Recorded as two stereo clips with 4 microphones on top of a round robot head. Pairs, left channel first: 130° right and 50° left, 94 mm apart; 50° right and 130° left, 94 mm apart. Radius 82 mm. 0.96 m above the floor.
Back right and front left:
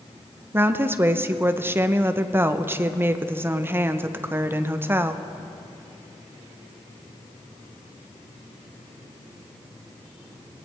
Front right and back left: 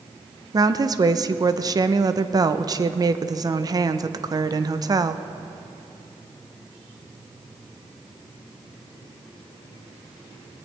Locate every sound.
0.5 s a woman speaking: 105° left, 0.8 m